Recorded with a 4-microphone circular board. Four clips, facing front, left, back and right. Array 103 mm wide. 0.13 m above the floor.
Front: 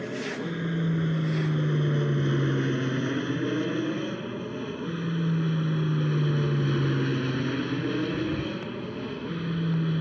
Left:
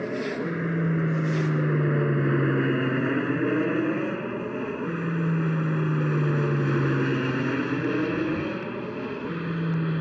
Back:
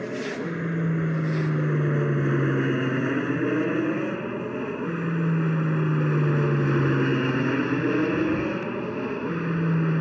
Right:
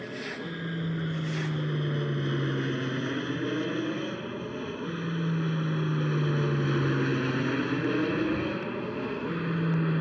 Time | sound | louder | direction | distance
0.0 | an aircraft | left 8 dB, back 3 dB | 110° left | ?